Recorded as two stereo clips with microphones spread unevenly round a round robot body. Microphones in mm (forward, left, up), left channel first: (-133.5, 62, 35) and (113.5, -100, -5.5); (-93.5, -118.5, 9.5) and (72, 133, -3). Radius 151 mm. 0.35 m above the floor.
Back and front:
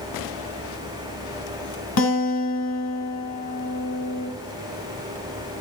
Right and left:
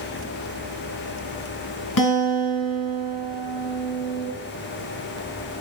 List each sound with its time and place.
2.0 s a guitar: 165° right, 3.5 m